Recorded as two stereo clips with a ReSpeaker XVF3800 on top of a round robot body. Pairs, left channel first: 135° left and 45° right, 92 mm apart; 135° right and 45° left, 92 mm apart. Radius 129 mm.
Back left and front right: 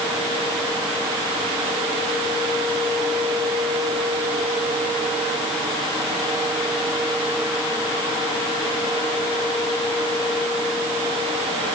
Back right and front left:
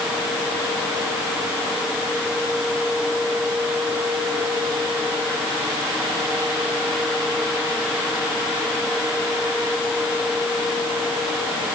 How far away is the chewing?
No chewing in this recording.